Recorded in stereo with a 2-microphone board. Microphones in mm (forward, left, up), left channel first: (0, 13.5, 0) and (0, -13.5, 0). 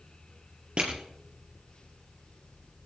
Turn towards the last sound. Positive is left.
turn(degrees=-45)  # may be behind; listen again after turning